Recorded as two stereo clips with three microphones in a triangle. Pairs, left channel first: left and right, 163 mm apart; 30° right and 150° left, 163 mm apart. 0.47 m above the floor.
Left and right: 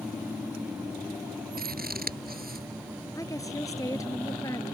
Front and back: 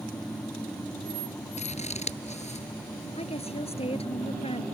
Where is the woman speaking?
20° left.